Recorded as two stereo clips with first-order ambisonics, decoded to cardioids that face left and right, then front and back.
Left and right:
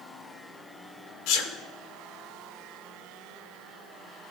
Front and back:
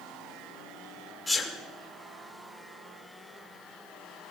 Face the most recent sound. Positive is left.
turn(degrees=80)